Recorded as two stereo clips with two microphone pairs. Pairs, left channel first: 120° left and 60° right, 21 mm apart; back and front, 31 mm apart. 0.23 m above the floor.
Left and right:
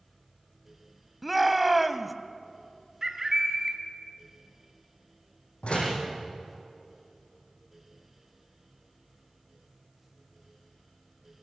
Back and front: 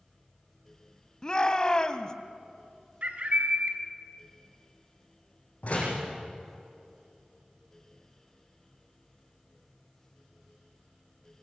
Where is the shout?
140° right, 1.4 m.